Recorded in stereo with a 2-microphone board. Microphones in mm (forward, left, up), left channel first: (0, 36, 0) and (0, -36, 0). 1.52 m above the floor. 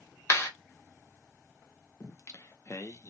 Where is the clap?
45° left (ahead or behind), 1.1 m.